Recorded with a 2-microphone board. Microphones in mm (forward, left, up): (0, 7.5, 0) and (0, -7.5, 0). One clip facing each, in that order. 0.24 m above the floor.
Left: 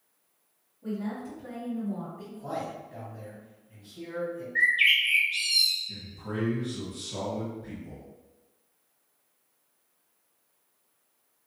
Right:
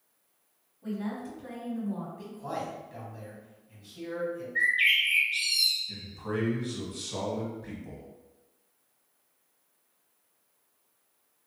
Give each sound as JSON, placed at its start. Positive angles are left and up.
{"t": 0.8, "sound": "a woman speaking", "side_deg": -20, "distance_m": 1.3}
{"t": 2.2, "sound": "a man speaking", "side_deg": -25, "distance_m": 1.4}
{"t": 4.5, "sound": "a bird", "side_deg": 15, "distance_m": 1.5}
{"t": 5.9, "sound": "a man speaking", "side_deg": -35, "distance_m": 1.2}